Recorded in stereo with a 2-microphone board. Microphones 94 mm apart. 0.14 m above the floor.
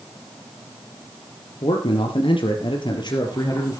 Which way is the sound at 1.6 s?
70° left (ahead or behind).